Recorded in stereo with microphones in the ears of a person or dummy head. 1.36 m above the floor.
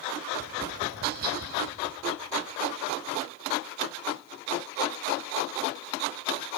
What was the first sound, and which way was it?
Tapping, 55° right (ahead or behind).